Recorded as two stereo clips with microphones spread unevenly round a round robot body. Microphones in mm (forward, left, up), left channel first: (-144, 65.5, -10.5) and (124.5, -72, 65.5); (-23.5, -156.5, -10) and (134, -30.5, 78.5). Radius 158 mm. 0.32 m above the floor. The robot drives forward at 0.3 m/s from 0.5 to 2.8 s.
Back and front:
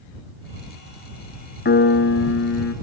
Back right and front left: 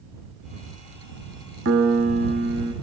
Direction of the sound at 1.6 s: 95° left.